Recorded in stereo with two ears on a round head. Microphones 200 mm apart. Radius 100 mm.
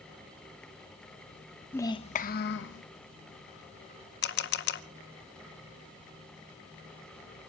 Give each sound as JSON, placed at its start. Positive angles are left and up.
{"t": 1.7, "sound": "a child speaking", "side_deg": 10, "distance_m": 0.8}
{"t": 4.2, "sound": "a camera shutter", "side_deg": 50, "distance_m": 0.9}